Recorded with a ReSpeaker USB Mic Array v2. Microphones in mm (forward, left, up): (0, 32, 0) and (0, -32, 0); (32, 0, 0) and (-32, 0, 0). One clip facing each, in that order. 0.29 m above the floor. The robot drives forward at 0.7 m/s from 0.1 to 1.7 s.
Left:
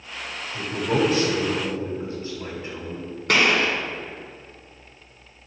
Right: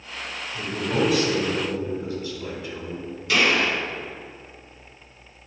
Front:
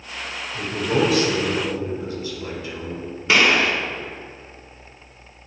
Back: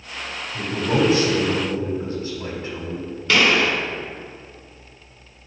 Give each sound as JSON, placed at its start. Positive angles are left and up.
{"t": 0.5, "sound": "a man speaking", "azimuth_deg": 120, "distance_m": 1.8}
{"t": 3.3, "sound": "a gunshot", "azimuth_deg": 65, "distance_m": 2.0}